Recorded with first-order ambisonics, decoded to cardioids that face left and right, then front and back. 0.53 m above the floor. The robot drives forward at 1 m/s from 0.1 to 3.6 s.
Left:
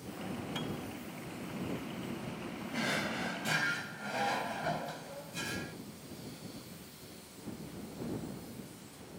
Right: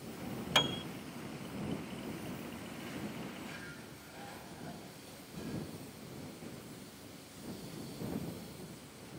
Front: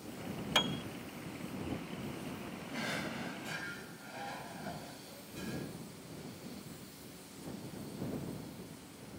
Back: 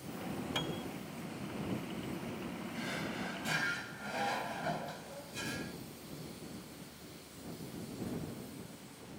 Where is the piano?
60° right; by 0.8 s 95° right.